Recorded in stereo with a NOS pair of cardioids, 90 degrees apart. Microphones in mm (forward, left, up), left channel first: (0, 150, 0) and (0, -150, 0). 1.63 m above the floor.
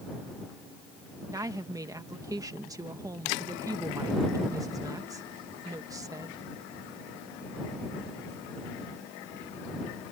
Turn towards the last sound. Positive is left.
turn(degrees=-10)